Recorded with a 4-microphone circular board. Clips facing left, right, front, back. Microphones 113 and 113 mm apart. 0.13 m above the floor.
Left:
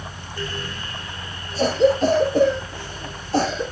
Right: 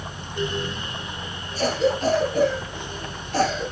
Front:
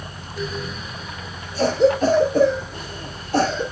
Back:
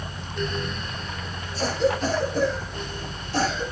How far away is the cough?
About 3 m.